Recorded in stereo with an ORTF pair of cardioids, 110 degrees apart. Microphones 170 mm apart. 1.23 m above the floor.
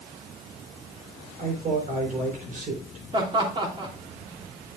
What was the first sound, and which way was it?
A man speaking, 55° right.